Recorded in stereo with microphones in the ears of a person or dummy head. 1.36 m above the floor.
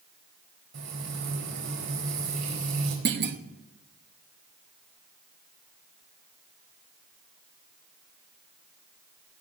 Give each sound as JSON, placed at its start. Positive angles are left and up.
{"t": 0.7, "sound": "frying", "side_deg": -60, "distance_m": 4.0}
{"t": 3.0, "sound": "a clunk", "side_deg": -55, "distance_m": 1.0}